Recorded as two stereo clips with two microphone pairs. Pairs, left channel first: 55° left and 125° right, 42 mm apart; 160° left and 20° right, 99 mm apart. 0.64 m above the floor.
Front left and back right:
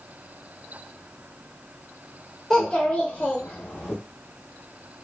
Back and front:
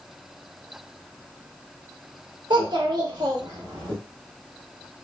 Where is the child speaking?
20° right, 0.8 m; by 3.9 s 35° left, 1.1 m.